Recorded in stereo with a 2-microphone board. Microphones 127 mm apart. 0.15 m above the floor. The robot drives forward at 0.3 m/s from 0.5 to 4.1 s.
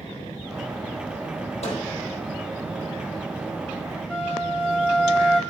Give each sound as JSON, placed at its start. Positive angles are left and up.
{"t": 1.6, "sound": "a microwave", "side_deg": 50, "distance_m": 3.0}
{"t": 4.1, "sound": "a flute", "side_deg": -10, "distance_m": 1.6}